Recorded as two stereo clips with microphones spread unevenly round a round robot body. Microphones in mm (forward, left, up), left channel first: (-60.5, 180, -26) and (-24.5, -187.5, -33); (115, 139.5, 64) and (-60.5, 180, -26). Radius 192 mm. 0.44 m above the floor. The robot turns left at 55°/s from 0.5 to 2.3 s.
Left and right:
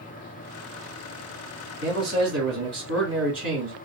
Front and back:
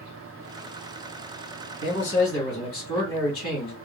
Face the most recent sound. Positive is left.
turn(degrees=-35)